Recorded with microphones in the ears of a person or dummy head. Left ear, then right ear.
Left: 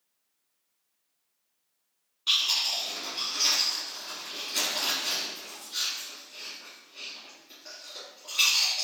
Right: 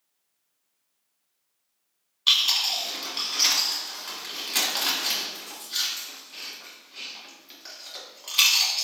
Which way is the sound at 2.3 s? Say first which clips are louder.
Right 4 dB; 35° right (ahead or behind).